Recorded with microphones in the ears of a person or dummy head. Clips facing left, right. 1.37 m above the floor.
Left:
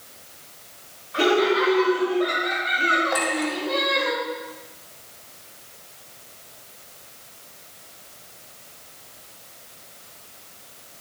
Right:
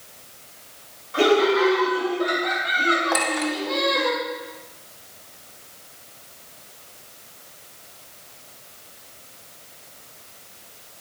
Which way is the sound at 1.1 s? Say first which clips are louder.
Right 2 dB; 55° right (ahead or behind).